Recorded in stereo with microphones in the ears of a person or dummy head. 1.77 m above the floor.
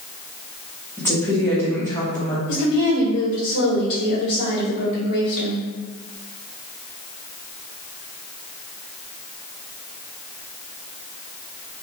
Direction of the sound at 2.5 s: 65° left (ahead or behind).